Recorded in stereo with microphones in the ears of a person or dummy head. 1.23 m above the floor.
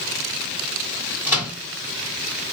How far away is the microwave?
About 1.9 m.